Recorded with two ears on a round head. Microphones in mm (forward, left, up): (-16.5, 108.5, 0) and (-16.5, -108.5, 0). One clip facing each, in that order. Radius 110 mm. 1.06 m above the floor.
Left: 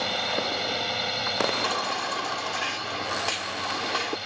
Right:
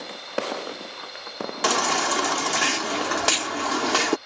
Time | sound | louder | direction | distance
0.0 | a drone | left 1 dB | 65° left (ahead or behind) | ?
1.6 | a baby crying | right 6 dB | 60° right (ahead or behind) | ?